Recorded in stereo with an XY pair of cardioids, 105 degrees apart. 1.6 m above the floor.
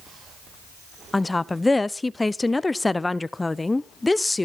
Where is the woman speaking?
15° left, 0.7 m.